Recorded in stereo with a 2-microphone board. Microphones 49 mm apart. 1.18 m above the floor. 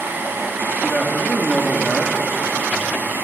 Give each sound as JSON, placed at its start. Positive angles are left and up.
{"t": 0.8, "sound": "a man speaking", "side_deg": 20, "distance_m": 2.5}